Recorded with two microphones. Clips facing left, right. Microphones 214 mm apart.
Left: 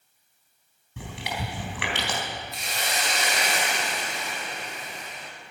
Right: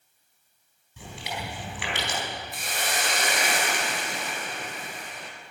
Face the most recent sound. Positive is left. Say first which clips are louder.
# right 1 dB
turn(degrees=-50)  # may be behind; listen again after turning